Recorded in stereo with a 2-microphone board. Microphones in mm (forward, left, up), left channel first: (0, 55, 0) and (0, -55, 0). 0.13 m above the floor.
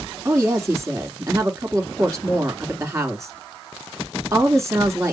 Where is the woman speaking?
25° right (ahead or behind), 2.0 m.